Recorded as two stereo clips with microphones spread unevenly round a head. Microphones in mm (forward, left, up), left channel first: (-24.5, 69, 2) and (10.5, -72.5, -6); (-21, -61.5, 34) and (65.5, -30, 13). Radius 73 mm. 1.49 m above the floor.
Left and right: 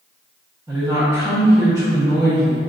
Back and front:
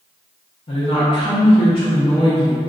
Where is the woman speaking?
145° right, 1.1 m.